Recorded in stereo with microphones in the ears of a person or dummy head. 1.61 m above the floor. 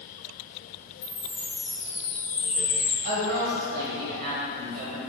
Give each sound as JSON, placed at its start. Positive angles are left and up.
{"t": 1.0, "sound": "a chime", "side_deg": 0, "distance_m": 1.5}
{"t": 3.0, "sound": "a woman speaking", "side_deg": -50, "distance_m": 1.2}